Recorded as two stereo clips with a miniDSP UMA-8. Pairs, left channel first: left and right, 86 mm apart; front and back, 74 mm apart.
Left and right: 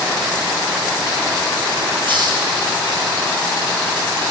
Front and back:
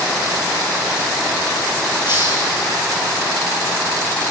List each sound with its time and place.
2.0 s a hiss: 20° left, 2.5 m